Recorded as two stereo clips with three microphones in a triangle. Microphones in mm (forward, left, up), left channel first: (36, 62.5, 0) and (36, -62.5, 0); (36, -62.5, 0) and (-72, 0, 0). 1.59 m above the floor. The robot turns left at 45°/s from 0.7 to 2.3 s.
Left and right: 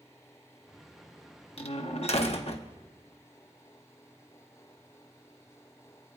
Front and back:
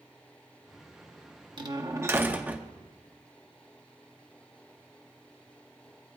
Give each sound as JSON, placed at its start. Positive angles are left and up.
{"t": 1.6, "sound": "a door slam", "azimuth_deg": 110, "distance_m": 1.1}